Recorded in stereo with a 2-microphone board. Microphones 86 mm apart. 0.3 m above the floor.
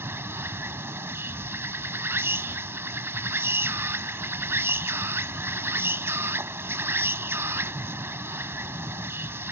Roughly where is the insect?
Right.